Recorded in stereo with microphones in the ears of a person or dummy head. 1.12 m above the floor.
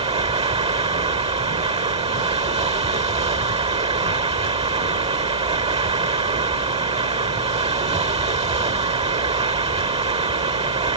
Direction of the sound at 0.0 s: 25° right (ahead or behind).